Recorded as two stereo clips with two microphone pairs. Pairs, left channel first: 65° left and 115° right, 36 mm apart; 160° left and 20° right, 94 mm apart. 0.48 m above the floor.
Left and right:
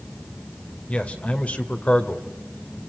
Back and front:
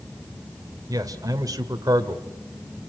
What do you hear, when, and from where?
0.9 s a man speaking: 20° left, 2 m